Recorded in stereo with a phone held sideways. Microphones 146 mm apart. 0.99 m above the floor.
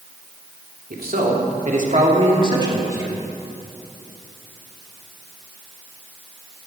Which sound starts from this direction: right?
A man speaking, at 0.9 s.